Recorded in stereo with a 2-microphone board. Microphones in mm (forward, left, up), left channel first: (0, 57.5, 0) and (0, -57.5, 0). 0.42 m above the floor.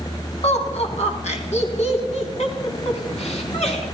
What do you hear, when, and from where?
0.4 s laughter: 65° left (ahead or behind), 3 m; by 3.8 s 60° left (ahead or behind), 3.5 m